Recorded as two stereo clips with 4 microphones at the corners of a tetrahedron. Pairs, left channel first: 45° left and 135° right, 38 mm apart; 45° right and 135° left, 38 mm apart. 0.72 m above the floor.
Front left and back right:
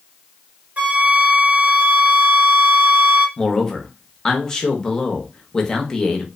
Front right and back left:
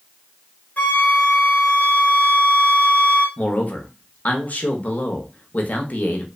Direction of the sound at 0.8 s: 90° right.